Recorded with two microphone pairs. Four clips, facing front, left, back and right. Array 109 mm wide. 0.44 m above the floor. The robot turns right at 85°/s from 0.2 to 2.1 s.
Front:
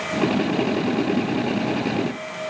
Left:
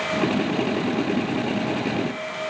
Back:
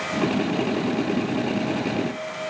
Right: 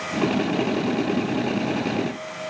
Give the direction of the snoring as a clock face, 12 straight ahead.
I don't hear snoring.